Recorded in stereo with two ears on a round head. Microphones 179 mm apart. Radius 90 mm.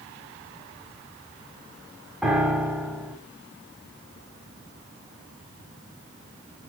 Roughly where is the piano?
Centre.